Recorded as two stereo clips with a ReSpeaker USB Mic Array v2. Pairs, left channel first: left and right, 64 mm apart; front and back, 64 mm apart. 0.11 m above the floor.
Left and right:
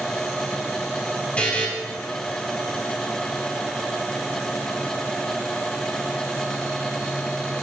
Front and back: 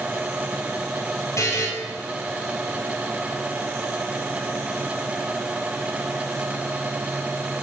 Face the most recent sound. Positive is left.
turn(degrees=25)